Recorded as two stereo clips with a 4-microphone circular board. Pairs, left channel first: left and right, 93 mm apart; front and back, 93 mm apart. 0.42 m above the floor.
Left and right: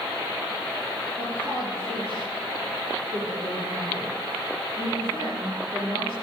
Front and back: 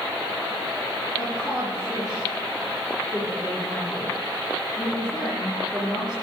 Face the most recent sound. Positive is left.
turn(degrees=-95)